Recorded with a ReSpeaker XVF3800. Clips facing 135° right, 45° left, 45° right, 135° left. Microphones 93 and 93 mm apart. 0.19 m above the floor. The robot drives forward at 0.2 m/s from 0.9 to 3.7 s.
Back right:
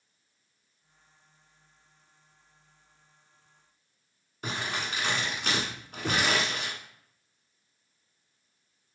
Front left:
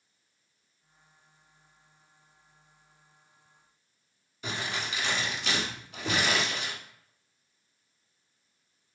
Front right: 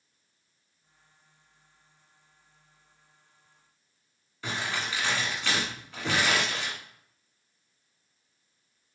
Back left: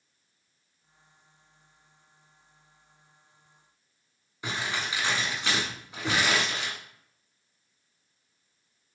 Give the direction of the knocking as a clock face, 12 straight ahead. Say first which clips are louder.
Back right 1 dB, even; 5 o'clock.